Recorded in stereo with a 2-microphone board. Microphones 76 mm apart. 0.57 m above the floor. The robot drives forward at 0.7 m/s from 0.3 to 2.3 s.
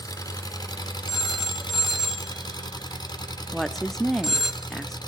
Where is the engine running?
50° left (ahead or behind), 1.5 m; by 5.1 s 65° left (ahead or behind), 1.3 m.